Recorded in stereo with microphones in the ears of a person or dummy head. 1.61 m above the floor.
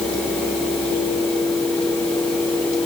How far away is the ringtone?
I don't hear a ringtone.